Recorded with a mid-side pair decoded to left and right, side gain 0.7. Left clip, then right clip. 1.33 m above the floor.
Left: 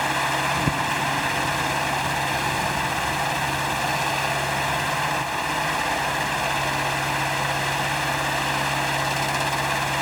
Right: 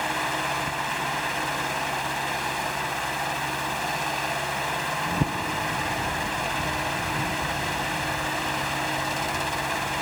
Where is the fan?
25° left, 0.8 m.